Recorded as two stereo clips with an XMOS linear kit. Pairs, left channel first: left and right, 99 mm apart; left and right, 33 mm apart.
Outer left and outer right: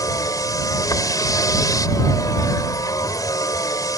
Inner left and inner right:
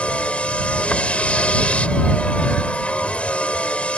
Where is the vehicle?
35° left (ahead or behind).